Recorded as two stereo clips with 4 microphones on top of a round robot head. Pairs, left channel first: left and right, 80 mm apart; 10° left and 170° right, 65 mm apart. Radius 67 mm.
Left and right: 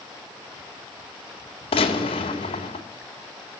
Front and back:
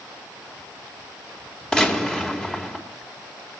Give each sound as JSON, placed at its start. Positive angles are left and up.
{"t": 1.7, "sound": "a gunshot", "azimuth_deg": 90, "distance_m": 3.0}